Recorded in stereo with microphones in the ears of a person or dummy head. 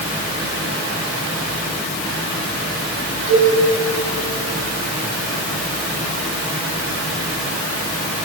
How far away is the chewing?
I don't hear chewing.